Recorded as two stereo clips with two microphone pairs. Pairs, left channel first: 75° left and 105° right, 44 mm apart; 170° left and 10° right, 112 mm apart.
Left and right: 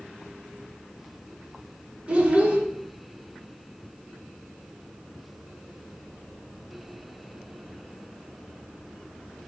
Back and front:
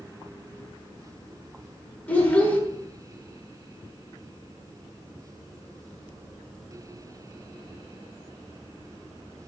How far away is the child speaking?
About 0.5 m.